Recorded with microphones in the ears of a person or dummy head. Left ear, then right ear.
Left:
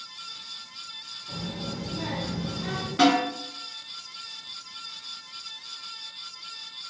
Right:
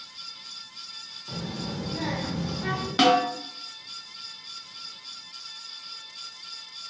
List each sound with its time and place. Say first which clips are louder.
1.3 s a child speaking: right 1 dB; 60° right (ahead or behind), 0.8 m; by 2.9 s 30° right (ahead or behind), 0.8 m
3.0 s a snare drum: right 1 dB; 35° right (ahead or behind), 1.0 m